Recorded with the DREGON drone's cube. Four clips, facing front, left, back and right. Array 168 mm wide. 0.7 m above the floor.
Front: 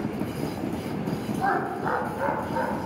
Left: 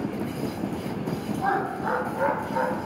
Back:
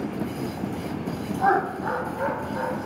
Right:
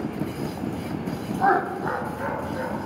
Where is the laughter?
110° right, 0.6 m; by 2.8 s 55° left, 1.1 m.